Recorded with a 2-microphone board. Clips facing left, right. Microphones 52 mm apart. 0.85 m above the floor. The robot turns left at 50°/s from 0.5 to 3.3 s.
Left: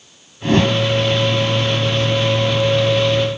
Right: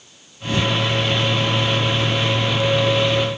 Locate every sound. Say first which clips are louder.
0.4 s a whoosh: left 6 dB; 55° left (ahead or behind); by 0.8 s 70° left (ahead or behind)